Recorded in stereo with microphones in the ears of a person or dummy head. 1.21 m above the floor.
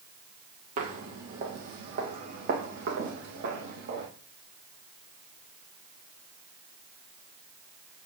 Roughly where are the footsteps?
Right.